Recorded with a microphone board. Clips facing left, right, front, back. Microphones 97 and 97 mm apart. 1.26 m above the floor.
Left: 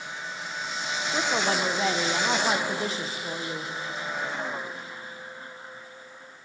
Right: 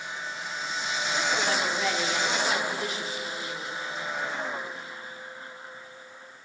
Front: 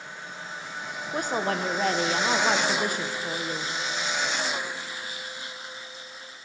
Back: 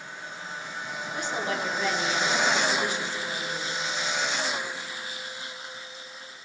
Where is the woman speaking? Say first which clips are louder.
Left 2 dB, front 4 dB; 35° left, 1.0 m.